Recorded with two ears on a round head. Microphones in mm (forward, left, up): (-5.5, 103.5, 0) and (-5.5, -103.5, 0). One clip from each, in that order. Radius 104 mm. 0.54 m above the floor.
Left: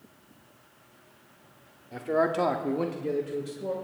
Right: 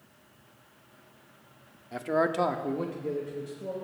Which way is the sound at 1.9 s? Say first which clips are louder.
Left 1 dB; 30° right (ahead or behind).